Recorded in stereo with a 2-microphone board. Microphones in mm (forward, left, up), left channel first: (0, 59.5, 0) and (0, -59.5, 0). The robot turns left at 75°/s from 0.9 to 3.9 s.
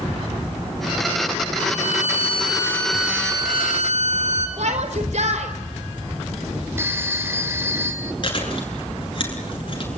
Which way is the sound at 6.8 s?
20° right (ahead or behind).